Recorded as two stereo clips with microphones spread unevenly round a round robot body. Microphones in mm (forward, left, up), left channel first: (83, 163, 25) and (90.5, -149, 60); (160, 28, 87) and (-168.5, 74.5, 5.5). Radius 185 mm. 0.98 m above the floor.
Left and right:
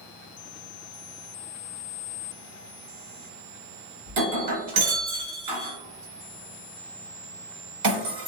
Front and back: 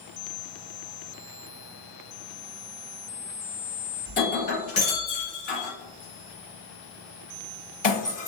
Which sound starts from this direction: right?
Breaking glass, at 4.1 s.